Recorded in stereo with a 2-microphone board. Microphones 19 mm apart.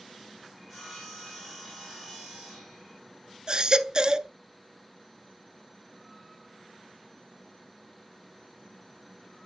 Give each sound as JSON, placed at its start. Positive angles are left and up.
{"t": 0.6, "sound": "sawing", "side_deg": 20, "distance_m": 7.5}
{"t": 3.5, "sound": "a baby crying", "side_deg": -40, "distance_m": 0.5}